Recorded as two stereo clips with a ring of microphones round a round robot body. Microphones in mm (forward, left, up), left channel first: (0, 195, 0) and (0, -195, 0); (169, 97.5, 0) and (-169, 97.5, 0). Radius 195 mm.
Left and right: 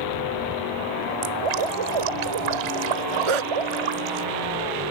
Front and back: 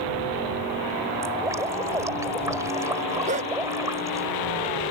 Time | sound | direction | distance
1.2 | dripping | 100° right | ?
3.3 | a dog barking | 105° right | ?